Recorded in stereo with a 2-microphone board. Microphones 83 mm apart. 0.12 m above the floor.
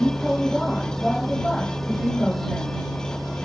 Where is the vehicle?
5° left (ahead or behind).